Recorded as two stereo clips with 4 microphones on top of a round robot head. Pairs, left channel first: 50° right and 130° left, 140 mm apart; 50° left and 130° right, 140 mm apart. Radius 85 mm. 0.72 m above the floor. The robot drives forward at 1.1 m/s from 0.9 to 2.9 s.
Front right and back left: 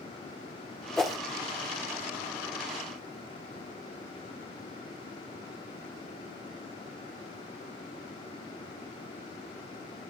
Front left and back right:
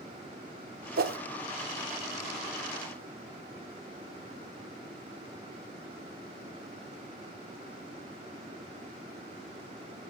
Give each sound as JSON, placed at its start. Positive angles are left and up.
{"t": 1.0, "sound": "a whoosh", "azimuth_deg": -135, "distance_m": 1.2}